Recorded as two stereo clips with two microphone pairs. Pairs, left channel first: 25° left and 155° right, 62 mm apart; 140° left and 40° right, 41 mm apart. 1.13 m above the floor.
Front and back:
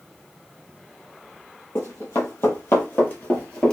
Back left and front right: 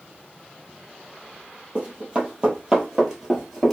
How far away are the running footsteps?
About 1.7 m.